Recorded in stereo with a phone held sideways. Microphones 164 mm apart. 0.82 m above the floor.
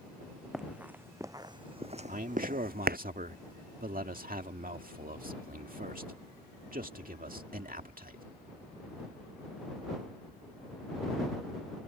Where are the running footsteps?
5° right (ahead or behind); by 3.0 s 70° right (ahead or behind).